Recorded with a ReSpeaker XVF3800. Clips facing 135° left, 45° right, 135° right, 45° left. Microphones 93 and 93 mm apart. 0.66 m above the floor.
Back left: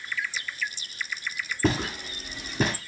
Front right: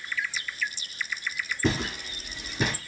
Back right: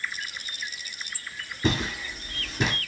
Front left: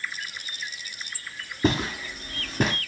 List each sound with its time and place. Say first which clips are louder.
1.6 s footsteps: back left 2 dB, front left 3 dB; 90° left, 2.5 m; by 2.8 s 85° left, 1.6 m